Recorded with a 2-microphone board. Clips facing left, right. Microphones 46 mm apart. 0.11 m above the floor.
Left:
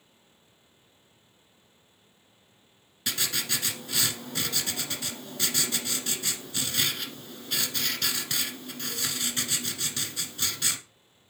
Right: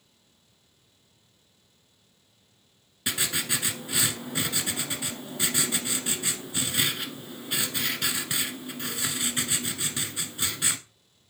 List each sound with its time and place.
3.1 s writing: 15° right (ahead or behind), 1.2 m